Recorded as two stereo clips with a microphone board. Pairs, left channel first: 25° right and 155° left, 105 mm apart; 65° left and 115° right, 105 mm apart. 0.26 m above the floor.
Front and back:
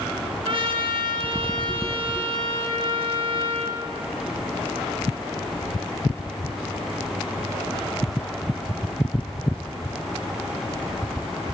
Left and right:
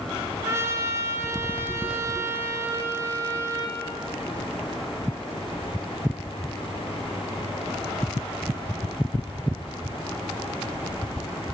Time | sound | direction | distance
0.5 | a trumpet | 175° right | 0.7 m